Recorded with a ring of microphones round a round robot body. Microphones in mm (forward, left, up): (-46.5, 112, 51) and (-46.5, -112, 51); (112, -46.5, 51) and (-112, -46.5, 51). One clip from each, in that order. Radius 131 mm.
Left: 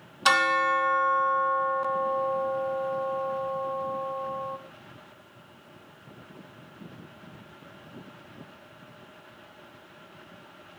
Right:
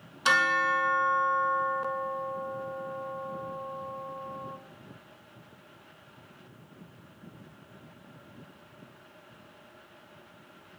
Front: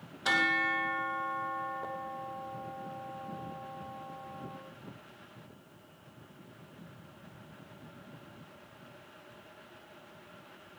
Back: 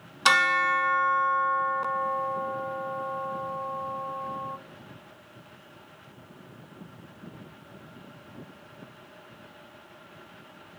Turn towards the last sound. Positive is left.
turn(degrees=165)